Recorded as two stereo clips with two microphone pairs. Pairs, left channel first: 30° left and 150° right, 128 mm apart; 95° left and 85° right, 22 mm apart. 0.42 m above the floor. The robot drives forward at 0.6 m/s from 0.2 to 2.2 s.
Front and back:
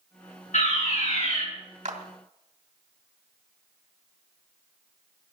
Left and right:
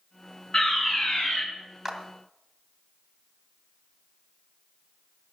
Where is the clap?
160° right, 1.8 m.